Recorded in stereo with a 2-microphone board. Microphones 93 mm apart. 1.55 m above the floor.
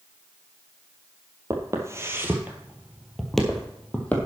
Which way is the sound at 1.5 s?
35° right (ahead or behind).